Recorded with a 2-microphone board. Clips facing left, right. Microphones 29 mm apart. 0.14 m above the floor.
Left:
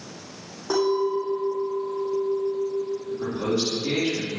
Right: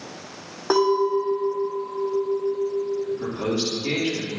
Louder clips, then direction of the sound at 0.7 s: Right 3 dB; 45° right (ahead or behind).